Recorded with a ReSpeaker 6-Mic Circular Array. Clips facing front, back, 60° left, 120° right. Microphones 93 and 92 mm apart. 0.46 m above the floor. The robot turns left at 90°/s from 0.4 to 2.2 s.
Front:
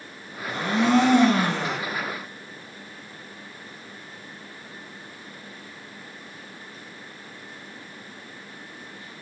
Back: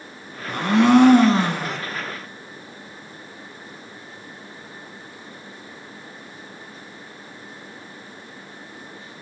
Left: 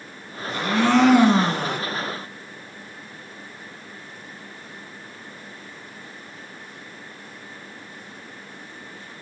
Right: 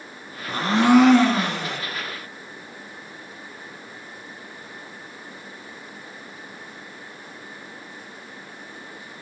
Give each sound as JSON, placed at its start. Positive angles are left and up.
{"t": 0.5, "sound": "a blender", "azimuth_deg": -160, "distance_m": 0.8}